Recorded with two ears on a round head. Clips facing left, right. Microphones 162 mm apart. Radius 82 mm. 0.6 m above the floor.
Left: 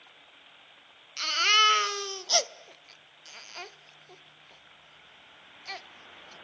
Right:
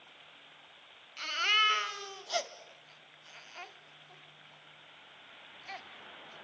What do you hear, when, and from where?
1.2 s a baby crying: 50° left (ahead or behind), 0.9 m